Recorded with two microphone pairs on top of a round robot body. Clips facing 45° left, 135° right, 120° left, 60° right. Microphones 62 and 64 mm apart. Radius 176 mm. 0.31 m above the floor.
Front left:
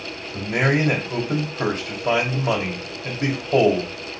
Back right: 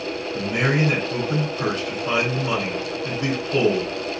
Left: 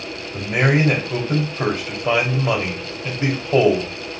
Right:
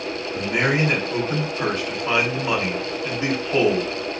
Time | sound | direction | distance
0.3 | a man speaking | 70° left | 2 m